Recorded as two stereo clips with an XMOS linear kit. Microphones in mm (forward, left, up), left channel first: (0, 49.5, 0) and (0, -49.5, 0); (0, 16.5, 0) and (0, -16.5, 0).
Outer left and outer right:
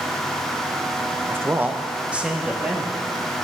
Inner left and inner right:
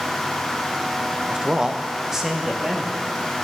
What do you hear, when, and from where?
1.3 s a man speaking: 25° right (ahead or behind), 0.6 m; by 3.1 s 5° right (ahead or behind), 2.5 m